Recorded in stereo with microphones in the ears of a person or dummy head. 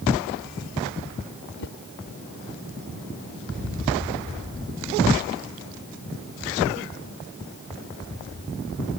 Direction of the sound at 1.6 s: 70° left (ahead or behind).